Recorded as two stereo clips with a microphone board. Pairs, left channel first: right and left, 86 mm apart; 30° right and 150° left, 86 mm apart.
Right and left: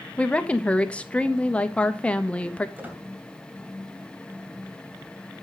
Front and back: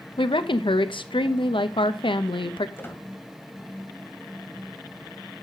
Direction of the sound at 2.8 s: 25° left.